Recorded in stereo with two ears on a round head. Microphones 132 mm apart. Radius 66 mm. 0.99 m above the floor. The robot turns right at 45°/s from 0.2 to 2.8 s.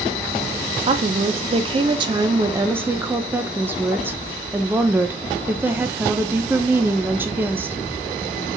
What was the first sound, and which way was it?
A woman speaking, 110° right.